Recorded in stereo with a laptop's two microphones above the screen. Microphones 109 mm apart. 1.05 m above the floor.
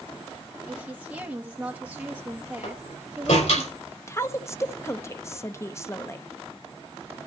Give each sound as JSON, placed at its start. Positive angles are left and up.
{"t": 0.7, "sound": "a woman speaking", "side_deg": -10, "distance_m": 1.7}
{"t": 2.6, "sound": "a door slam", "side_deg": 85, "distance_m": 5.0}
{"t": 4.1, "sound": "a woman speaking", "side_deg": 25, "distance_m": 0.5}